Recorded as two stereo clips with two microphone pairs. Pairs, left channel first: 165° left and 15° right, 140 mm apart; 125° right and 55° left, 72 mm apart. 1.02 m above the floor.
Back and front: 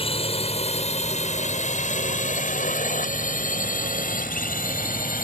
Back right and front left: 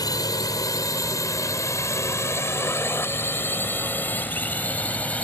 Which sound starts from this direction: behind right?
A drone, at 0.0 s.